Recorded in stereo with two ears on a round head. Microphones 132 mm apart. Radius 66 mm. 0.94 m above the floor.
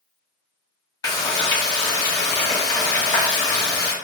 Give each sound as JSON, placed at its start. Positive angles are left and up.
{"t": 1.0, "sound": "frying", "side_deg": 25, "distance_m": 1.0}